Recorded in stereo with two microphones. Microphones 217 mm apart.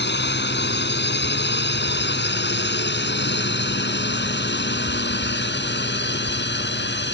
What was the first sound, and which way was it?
A drone, 55° left (ahead or behind).